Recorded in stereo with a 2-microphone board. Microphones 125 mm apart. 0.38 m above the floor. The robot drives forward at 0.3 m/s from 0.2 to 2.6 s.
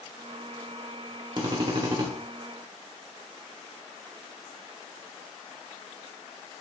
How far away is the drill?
About 0.6 m.